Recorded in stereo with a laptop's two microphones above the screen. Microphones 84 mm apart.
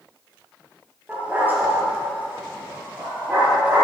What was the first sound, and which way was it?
A dog barking, 20° right (ahead or behind).